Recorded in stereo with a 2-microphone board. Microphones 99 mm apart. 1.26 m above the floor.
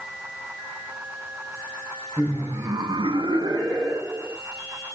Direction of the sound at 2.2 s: 20° right (ahead or behind).